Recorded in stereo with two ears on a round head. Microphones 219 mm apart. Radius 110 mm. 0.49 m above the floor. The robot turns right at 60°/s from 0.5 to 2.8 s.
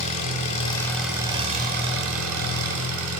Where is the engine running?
145° left, 3 m; by 3.2 s 75° right, 3 m.